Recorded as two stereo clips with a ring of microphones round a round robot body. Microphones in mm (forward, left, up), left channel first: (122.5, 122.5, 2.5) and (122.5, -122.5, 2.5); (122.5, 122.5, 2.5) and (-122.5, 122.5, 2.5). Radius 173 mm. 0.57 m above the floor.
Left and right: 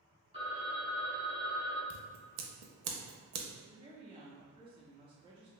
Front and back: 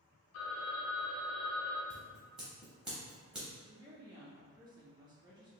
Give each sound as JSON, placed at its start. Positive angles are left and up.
{"t": 0.3, "sound": "a phone ringing", "azimuth_deg": -25, "distance_m": 1.0}
{"t": 1.9, "sound": "scissors", "azimuth_deg": -95, "distance_m": 0.5}
{"t": 3.6, "sound": "a woman speaking", "azimuth_deg": -130, "distance_m": 0.6}